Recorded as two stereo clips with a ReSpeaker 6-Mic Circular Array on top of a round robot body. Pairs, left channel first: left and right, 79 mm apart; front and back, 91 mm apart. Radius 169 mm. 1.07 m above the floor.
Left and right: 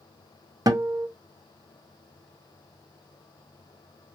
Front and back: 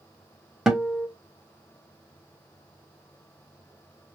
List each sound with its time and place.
0.7 s a guitar: 100° right, 0.7 m